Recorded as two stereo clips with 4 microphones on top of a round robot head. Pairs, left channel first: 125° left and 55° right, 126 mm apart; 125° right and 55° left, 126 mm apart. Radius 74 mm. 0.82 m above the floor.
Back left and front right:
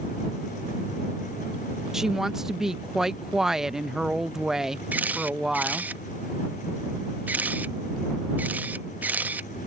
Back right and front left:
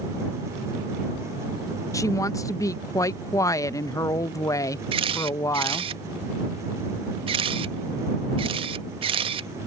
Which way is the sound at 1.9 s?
135° right.